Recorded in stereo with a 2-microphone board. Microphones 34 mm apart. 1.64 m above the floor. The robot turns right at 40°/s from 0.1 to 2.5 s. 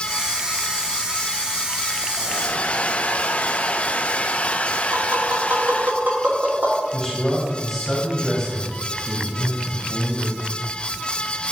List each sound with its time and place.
2.2 s a hair dryer: 35° left (ahead or behind), 0.5 m; by 5.9 s 50° left (ahead or behind), 0.5 m
4.9 s tapping: 75° right (ahead or behind), 3.5 m
6.9 s a man speaking: 20° left (ahead or behind), 4 m